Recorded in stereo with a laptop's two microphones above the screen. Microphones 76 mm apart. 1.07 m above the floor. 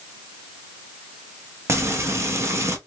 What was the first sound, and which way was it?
Frying, 40° right (ahead or behind).